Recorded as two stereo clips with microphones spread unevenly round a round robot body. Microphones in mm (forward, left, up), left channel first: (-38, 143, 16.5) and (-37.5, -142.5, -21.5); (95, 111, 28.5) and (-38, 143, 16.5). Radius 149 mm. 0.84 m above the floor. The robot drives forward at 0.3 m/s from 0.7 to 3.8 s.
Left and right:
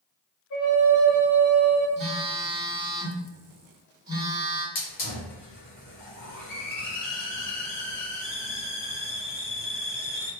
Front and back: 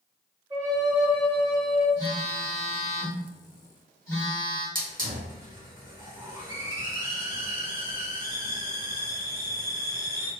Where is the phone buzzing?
160° right, 0.7 m; by 4.7 s 170° right, 1.2 m.